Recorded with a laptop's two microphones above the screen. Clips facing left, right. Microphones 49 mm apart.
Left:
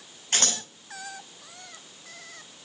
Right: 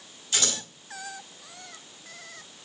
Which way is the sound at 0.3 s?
50° left (ahead or behind).